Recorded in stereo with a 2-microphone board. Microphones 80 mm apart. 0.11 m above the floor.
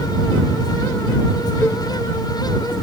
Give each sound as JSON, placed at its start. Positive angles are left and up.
{"t": 1.6, "sound": "a cowbell", "side_deg": 25}